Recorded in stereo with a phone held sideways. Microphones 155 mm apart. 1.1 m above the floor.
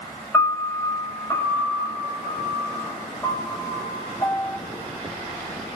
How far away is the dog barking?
I don't hear a dog barking.